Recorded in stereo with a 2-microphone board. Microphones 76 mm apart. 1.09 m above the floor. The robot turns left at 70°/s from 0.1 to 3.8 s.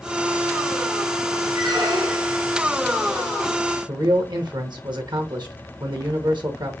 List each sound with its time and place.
1.5 s a squeak: 100° right, 3 m; by 2.4 s 160° right, 3 m
3.9 s a man speaking: 70° right (ahead or behind), 1.4 m